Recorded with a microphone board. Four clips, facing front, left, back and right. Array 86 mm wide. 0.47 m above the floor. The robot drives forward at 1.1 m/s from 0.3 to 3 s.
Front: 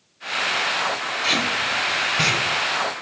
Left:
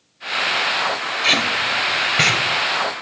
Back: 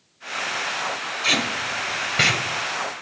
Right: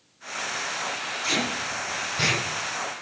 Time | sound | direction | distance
1.2 | tape being pulled | 95° left | 1.9 m